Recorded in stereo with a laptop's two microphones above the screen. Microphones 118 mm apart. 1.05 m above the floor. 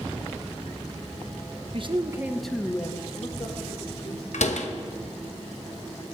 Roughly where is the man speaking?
Right.